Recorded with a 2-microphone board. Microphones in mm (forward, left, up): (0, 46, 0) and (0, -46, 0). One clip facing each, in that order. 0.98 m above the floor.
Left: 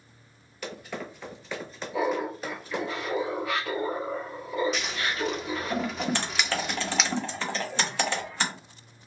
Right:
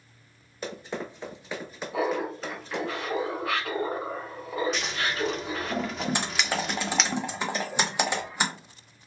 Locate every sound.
0.6 s running footsteps: 30° right (ahead or behind), 1.3 m; by 2.9 s 20° left (ahead or behind), 1.0 m
1.9 s laughter: 65° right (ahead or behind), 1.3 m
4.7 s scissors: centre (ahead or behind), 0.5 m
6.2 s typing on a keyboard: 15° right (ahead or behind), 0.6 m